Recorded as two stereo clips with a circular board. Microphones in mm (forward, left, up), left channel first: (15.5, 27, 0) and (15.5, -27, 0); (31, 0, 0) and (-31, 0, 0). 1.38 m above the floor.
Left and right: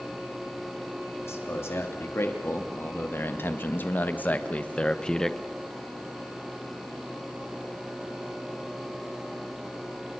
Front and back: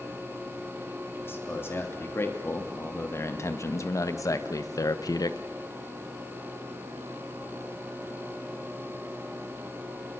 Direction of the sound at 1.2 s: 55° left.